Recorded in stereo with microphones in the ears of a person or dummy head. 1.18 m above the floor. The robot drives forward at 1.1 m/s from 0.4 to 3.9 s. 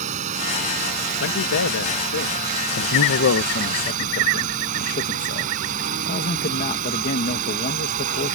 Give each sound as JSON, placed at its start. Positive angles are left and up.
{"t": 0.0, "sound": "a drone", "side_deg": -40}
{"t": 1.2, "sound": "a man speaking", "side_deg": 75}
{"t": 2.8, "sound": "a man speaking", "side_deg": 65}